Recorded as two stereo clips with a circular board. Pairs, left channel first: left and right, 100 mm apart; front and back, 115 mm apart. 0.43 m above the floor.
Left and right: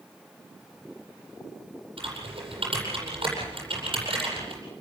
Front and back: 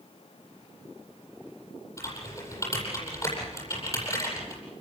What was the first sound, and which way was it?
Typing on a keyboard, 60° right.